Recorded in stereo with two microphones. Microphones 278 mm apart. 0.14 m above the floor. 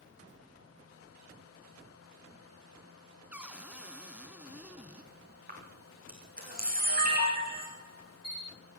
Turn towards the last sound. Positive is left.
turn(degrees=-35)  # may be behind; listen again after turning